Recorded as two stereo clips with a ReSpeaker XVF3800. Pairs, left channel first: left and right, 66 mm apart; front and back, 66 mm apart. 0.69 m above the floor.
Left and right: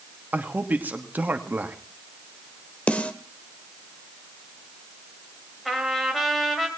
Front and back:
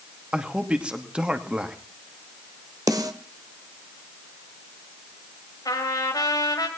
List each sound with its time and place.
0.3 s a man speaking: 120° right, 1.2 m
2.9 s a snare drum: 160° left, 1.1 m
5.7 s a trumpet: straight ahead, 2.5 m